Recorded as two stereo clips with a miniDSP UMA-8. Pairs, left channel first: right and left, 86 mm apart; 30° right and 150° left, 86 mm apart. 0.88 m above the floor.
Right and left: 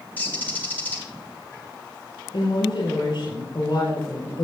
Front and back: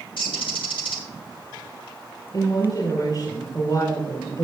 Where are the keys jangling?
No keys jangling in this recording.